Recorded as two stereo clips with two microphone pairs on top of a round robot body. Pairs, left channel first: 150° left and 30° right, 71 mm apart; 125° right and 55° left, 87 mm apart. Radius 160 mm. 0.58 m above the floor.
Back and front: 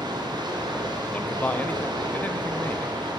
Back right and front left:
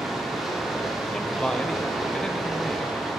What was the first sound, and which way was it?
Running water, 40° right.